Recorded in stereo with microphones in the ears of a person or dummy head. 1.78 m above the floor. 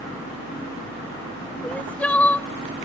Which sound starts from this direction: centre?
Crying, at 1.6 s.